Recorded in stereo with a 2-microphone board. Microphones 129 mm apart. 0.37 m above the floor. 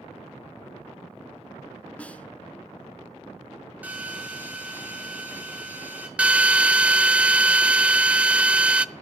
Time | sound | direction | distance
2.0 | a snare drum | 10° left (ahead or behind) | 1.5 m
3.8 | a drill | 10° right (ahead or behind) | 4.5 m
6.2 | a drill | 10° right (ahead or behind) | 0.7 m